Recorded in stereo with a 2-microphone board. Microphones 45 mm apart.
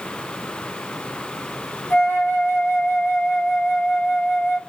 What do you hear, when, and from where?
1.9 s a flute: 65° left (ahead or behind), 1.7 m